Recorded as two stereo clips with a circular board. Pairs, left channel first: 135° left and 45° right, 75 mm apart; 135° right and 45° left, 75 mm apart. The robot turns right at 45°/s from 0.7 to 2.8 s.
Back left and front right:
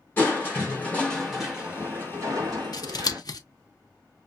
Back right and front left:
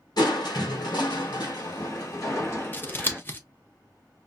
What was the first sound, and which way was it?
Crushing, 160° right.